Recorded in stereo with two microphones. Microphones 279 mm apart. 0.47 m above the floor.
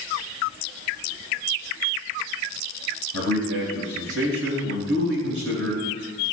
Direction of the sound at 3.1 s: 50° right (ahead or behind).